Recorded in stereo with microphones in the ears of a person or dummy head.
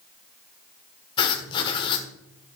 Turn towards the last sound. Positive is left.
turn(degrees=30)  # may be behind; listen again after turning